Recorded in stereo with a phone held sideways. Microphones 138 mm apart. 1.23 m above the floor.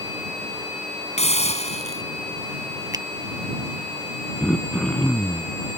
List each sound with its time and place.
1.2 s a hiss: 50° left (ahead or behind)
2.9 s a finger snap: 25° right (ahead or behind)
4.4 s throat clearing: 5° left (ahead or behind)